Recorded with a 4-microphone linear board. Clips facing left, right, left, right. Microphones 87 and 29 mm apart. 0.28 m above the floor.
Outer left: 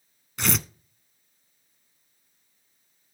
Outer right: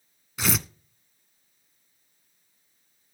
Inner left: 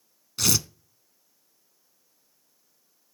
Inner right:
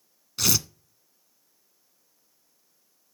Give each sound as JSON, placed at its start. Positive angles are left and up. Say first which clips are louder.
{"t": 0.4, "sound": "tearing paper", "louder": "even, even", "side_deg": -5, "distance_m": 0.5}